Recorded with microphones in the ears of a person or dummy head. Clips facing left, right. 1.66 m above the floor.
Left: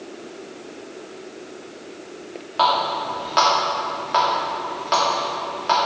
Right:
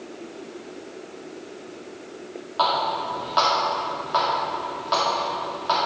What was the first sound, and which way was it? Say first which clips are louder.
A running tap: left 3 dB; 35° left (ahead or behind).